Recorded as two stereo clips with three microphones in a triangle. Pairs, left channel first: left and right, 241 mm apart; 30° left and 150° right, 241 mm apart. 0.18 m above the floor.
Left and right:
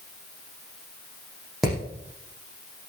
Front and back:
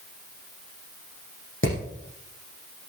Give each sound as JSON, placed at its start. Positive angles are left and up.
{"t": 1.6, "sound": "hammering", "azimuth_deg": 0, "distance_m": 6.5}